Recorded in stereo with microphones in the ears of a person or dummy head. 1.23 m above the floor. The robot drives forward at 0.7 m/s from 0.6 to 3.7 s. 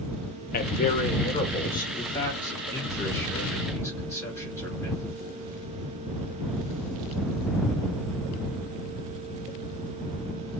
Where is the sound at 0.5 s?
50° left (ahead or behind), 0.6 m; by 1.8 s 20° left (ahead or behind), 1.4 m.